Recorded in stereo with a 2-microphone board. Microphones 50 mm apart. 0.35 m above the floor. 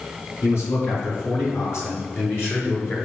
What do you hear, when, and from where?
0.4 s a man speaking: 65° left (ahead or behind), 5 m; by 3.0 s 45° left (ahead or behind), 5 m